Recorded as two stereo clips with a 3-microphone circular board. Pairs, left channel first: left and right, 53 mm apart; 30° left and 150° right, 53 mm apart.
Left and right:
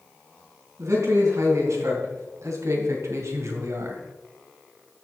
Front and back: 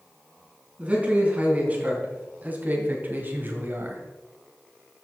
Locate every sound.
0.8 s a man speaking: 90° right, 3.5 m; by 4.0 s 110° right, 1.7 m